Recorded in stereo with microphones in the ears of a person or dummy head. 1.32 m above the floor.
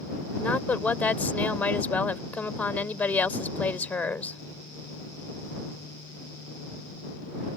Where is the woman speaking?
20° left (ahead or behind).